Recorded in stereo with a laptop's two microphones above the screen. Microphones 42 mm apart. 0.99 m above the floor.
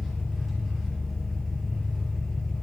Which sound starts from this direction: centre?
An engine running, at 0.0 s.